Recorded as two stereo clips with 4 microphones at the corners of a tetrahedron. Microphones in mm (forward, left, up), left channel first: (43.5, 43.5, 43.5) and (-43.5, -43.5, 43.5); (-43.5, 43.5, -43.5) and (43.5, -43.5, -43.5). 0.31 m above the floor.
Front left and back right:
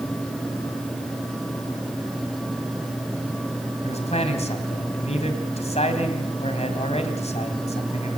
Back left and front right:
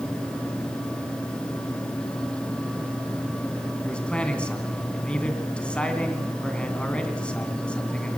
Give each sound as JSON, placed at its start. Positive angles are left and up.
{"t": 3.8, "sound": "a man speaking", "azimuth_deg": 55, "distance_m": 3.0}